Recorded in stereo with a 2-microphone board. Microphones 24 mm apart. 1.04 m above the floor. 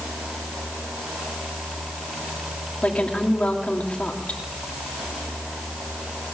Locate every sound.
2.8 s a woman speaking: 70° left (ahead or behind), 2.5 m